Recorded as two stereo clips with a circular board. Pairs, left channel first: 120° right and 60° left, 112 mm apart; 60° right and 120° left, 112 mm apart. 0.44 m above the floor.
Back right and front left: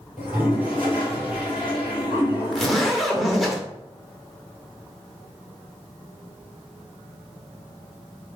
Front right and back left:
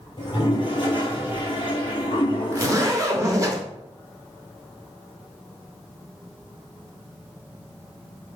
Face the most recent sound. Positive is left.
turn(degrees=150)